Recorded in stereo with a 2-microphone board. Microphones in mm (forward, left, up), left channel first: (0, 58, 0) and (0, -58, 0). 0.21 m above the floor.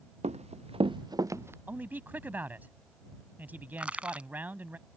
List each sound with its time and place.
0.2 s running footsteps: 80° right; by 1.6 s 20° right (ahead or behind)
1.7 s a man speaking: 15° right (ahead or behind)
3.8 s crushing: 10° right (ahead or behind)